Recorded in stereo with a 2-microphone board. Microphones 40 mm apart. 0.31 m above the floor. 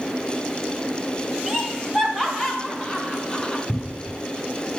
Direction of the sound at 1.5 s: Centre (ahead or behind).